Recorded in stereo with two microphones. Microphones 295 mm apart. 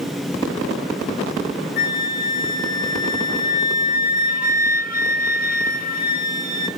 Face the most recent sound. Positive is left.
turn(degrees=30)  # may be behind; listen again after turning